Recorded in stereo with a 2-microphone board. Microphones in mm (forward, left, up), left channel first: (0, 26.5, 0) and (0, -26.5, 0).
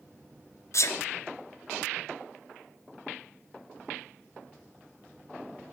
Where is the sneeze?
65° left (ahead or behind), 1.2 m.